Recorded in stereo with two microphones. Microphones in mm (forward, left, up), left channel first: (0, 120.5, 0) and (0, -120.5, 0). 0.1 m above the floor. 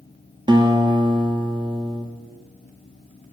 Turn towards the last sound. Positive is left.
turn(degrees=-20)  # may be behind; listen again after turning